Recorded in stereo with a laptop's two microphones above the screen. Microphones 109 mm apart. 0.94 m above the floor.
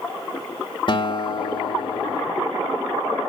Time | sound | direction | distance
0.9 | a guitar | 50° left (ahead or behind) | 1.9 m